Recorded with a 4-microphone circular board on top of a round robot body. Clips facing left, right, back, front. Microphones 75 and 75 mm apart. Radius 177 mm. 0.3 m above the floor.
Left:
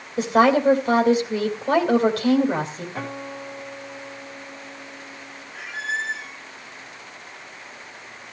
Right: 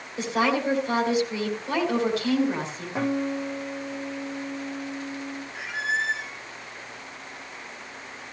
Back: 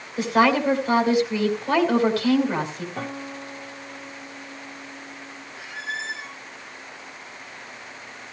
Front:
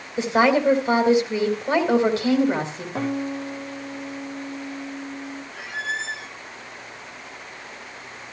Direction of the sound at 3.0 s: 15° right.